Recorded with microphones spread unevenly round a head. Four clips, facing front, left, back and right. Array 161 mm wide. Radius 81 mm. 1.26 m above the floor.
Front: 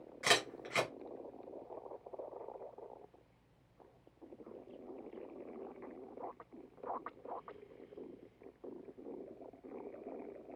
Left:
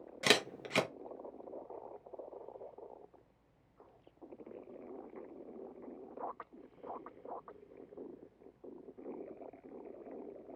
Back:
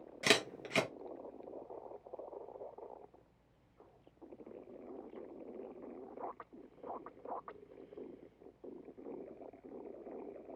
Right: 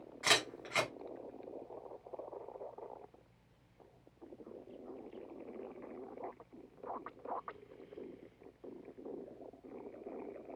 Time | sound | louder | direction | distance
0.2 | a camera shutter | left 3 dB, back 1 dB | 130° left | 0.8 m